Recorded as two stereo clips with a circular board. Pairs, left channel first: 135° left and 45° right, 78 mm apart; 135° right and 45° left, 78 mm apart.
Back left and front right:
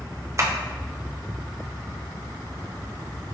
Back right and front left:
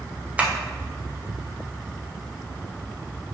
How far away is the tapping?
About 0.5 m.